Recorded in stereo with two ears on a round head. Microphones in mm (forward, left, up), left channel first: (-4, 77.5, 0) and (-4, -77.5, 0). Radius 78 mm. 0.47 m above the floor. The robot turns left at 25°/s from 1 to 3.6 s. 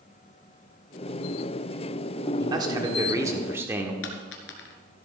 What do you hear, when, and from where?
2.4 s a man speaking: 25° right (ahead or behind), 1.5 m; by 3.9 s 15° right (ahead or behind), 1.5 m
4.0 s a dropped coin: 80° left, 2 m